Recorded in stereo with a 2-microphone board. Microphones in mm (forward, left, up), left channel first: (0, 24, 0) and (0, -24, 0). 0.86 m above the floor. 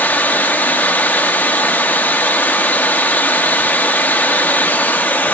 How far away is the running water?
About 1.0 m.